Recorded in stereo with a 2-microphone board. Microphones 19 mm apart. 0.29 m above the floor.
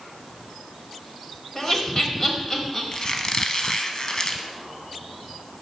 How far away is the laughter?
About 1.5 m.